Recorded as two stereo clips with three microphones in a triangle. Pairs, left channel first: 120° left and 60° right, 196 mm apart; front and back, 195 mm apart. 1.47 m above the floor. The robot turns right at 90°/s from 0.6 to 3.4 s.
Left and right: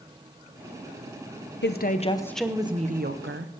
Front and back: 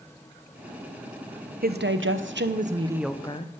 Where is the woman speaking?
140° left, 0.9 m; by 3.5 s 60° right, 0.9 m.